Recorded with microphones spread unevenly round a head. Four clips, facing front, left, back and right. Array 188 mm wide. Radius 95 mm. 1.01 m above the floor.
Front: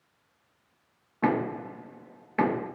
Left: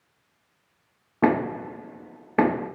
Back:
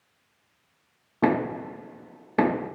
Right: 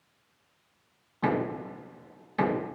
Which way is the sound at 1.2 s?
120° left.